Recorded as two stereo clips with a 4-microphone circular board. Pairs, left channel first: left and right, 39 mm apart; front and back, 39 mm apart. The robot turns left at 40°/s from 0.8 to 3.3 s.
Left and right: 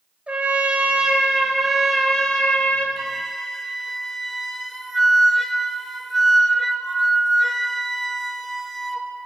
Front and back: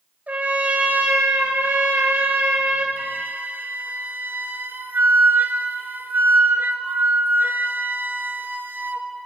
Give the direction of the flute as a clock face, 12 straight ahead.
6 o'clock.